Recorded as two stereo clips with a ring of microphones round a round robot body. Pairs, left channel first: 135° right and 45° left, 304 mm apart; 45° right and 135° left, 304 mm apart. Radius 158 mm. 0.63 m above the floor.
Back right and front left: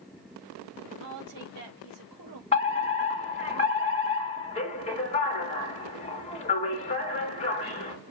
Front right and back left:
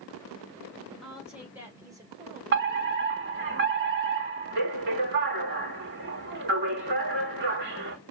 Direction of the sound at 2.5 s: 165° left.